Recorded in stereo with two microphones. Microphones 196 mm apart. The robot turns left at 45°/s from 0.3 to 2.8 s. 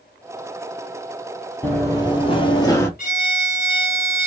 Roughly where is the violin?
Left.